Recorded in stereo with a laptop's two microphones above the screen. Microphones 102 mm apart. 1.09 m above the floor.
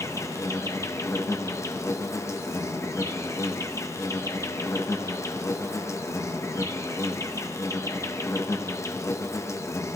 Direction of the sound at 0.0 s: 30° left (ahead or behind).